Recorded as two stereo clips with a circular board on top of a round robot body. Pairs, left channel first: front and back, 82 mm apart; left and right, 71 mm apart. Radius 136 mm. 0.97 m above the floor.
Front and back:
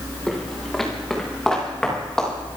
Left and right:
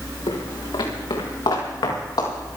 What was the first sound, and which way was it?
Footsteps, 90° left.